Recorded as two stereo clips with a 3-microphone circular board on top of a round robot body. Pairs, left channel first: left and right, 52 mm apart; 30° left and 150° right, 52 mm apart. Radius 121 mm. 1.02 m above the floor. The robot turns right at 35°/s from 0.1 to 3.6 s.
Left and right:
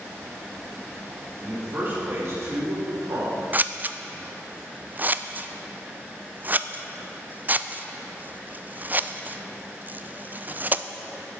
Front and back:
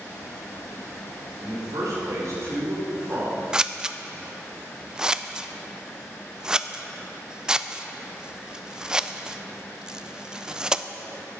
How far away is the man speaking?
About 4 m.